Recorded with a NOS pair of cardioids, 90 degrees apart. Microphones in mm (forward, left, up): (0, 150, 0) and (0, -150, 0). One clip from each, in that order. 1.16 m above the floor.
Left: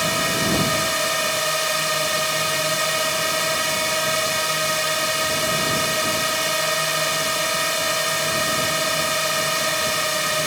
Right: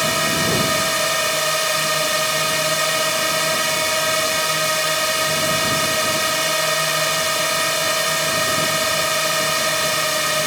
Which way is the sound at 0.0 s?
15° right.